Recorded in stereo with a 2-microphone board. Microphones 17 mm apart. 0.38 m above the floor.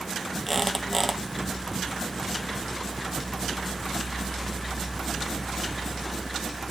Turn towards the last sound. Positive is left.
turn(degrees=10)  # may be behind; listen again after turning